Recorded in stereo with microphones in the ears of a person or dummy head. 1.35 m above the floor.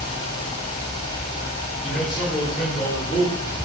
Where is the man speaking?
50° left (ahead or behind), 1.7 m; by 3.6 s 10° left (ahead or behind), 1.4 m.